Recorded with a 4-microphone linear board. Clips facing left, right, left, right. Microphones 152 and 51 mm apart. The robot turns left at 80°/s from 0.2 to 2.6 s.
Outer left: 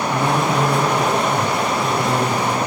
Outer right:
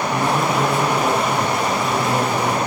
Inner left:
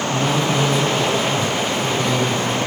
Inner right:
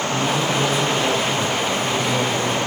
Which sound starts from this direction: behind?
A man speaking, at 0.1 s.